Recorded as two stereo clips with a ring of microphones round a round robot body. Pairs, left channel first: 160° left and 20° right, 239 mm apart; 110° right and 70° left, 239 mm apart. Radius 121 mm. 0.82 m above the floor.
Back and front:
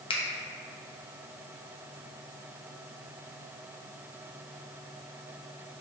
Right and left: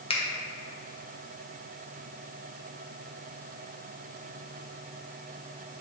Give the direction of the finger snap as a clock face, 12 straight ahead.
5 o'clock.